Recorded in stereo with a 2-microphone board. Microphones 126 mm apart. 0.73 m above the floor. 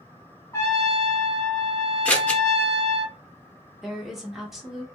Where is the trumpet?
20° left (ahead or behind), 0.8 m.